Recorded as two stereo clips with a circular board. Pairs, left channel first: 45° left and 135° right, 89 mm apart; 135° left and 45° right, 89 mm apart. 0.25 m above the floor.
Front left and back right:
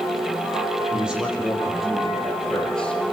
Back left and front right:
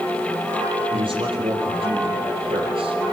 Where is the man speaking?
55° right, 7 m; by 3.0 s 35° right, 7.5 m.